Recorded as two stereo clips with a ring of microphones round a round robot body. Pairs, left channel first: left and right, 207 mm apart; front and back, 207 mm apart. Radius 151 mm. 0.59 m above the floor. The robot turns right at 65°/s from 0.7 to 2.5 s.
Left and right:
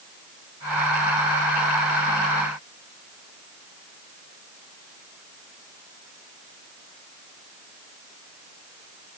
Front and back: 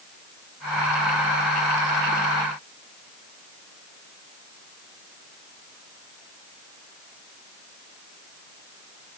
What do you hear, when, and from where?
Only background noise.